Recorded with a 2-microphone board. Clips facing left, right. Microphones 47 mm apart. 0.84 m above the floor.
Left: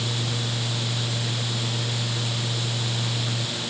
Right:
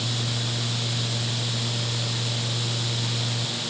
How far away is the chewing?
I don't hear chewing.